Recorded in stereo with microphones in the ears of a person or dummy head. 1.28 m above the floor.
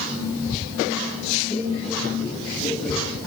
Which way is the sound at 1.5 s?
5° left (ahead or behind).